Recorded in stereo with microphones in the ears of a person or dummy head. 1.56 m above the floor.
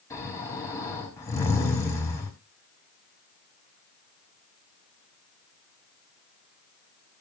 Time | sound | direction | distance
0.1 | snoring | 15° left (ahead or behind) | 5.5 m